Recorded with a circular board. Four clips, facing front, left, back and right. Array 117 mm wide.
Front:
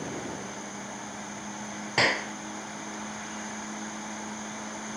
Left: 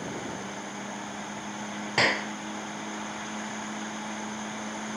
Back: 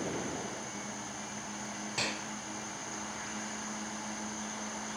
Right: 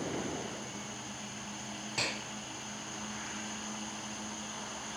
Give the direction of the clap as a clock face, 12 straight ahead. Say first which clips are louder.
Left 14 dB, front 13 dB; 11 o'clock.